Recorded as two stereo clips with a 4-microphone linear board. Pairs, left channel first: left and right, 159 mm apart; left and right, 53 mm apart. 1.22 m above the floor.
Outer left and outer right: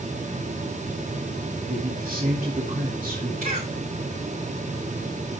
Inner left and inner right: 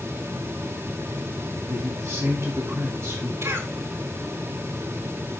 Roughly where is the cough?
Right.